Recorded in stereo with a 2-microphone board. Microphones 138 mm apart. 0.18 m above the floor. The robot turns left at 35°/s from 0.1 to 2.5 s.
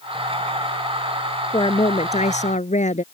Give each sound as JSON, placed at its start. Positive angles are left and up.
{"t": 1.5, "sound": "a woman speaking", "azimuth_deg": 140}